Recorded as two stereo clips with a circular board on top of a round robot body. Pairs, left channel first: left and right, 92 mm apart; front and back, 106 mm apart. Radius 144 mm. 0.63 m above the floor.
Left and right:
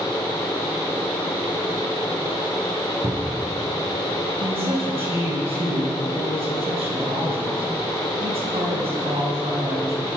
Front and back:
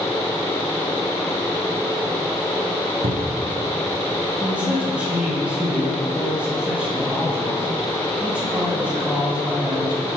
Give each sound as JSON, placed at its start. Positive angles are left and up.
{"t": 3.0, "sound": "a cupboard door", "azimuth_deg": -150, "distance_m": 1.2}
{"t": 4.4, "sound": "a man speaking", "azimuth_deg": -100, "distance_m": 6.0}